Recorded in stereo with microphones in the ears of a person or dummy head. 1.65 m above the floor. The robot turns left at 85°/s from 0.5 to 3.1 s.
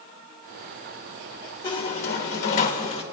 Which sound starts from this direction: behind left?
A squeak, at 1.6 s.